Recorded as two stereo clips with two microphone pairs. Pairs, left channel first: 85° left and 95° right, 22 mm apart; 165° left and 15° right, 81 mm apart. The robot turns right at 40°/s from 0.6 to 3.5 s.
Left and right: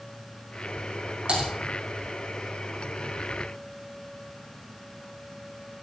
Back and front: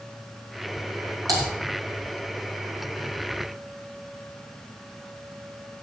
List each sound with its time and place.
1.3 s typing on a keyboard: 55° right, 7.5 m; by 1.4 s 50° right, 7.5 m